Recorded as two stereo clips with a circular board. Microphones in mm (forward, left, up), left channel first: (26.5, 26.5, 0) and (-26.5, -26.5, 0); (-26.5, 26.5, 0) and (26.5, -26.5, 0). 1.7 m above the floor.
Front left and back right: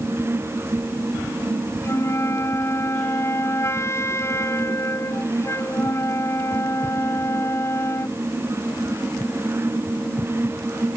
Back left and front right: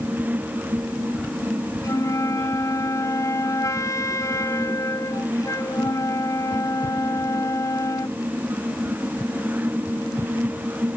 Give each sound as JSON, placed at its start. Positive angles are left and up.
{"t": 1.8, "sound": "a flute", "azimuth_deg": 95}